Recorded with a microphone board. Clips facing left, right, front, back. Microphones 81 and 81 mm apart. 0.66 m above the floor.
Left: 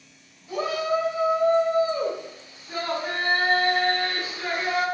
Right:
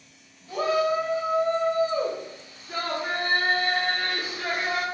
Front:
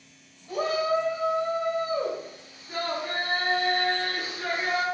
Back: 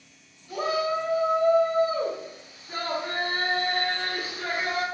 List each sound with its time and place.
0.5 s a shout: 25° left, 1.4 m; by 4.8 s straight behind, 1.8 m